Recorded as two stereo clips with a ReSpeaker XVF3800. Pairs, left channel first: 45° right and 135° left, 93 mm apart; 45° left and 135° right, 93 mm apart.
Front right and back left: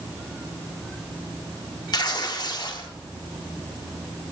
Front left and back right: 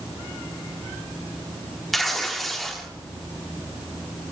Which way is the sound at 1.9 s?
45° right.